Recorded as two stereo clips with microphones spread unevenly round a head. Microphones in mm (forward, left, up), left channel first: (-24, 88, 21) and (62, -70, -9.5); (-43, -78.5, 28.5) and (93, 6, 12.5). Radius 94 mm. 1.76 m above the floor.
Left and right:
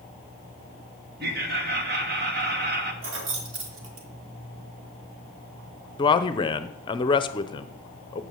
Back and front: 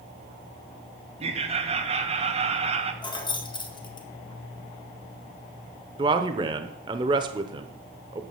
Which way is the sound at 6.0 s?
90° left.